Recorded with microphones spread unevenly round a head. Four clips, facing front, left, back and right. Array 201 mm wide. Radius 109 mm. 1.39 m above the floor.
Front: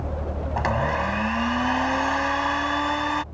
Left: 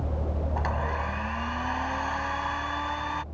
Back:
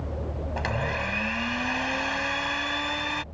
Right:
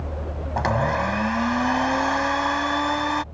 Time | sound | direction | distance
0.6 | a blender | 55° right | ?